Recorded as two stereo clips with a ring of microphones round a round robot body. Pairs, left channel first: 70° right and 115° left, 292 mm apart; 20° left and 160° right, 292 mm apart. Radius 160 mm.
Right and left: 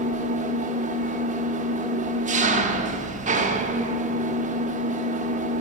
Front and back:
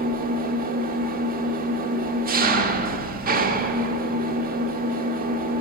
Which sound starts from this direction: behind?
An engine running, at 0.0 s.